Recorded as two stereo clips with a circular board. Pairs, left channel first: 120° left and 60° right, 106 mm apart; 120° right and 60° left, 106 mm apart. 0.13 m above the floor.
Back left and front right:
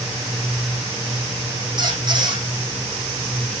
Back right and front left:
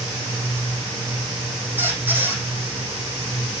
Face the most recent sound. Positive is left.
turn(degrees=-10)